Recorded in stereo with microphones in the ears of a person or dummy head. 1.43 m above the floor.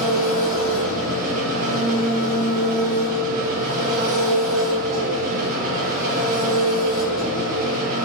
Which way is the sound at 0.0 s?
45° right (ahead or behind).